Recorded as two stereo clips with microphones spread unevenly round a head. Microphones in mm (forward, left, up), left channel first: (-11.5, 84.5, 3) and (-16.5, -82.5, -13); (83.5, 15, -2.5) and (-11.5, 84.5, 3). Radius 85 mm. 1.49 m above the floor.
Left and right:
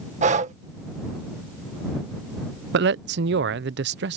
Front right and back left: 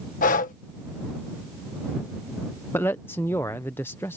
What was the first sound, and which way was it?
Breathing, 40° right.